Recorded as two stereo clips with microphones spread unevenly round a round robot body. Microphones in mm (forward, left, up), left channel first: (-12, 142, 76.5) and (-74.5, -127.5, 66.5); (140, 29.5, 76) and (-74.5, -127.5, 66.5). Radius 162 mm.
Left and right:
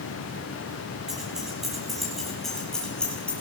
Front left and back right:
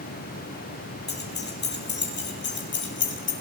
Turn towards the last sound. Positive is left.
turn(degrees=-10)